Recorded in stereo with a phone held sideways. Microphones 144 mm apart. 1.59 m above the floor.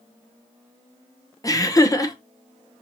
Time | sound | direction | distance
1.4 | laughter | 25° left (ahead or behind) | 0.9 m